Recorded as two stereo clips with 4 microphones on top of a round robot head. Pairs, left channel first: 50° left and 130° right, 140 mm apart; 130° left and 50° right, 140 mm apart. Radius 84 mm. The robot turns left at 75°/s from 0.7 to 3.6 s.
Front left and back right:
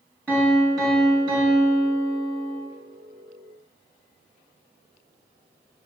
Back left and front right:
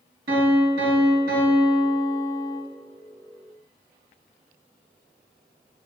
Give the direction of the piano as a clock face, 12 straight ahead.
1 o'clock.